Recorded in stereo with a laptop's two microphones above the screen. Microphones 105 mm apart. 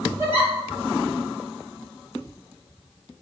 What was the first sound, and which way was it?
A giggle, 25° right (ahead or behind).